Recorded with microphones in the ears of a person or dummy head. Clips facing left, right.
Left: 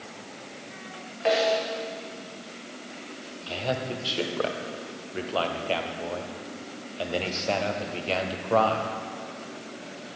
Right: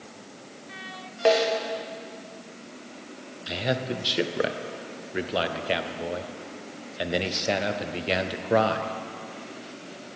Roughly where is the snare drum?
Right.